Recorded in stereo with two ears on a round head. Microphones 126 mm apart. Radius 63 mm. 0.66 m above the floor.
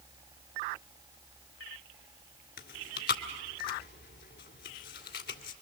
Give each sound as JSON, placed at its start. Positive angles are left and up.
{"t": 2.6, "sound": "chewing", "side_deg": 70, "distance_m": 1.7}